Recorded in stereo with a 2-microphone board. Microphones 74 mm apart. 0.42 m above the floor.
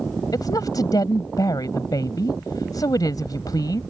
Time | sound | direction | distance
0.3 | a woman speaking | 65° left (ahead or behind) | ?